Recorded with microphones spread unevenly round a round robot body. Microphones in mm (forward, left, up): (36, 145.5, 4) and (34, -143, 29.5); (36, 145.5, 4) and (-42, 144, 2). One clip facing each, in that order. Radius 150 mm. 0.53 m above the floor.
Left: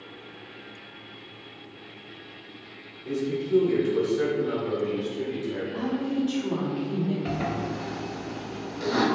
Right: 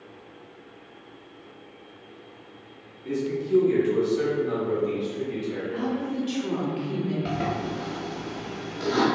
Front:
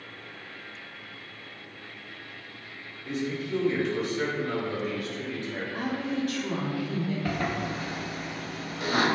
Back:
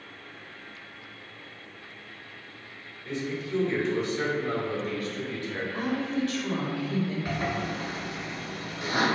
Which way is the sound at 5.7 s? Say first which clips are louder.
Left 1 dB, back 1 dB; 40° right.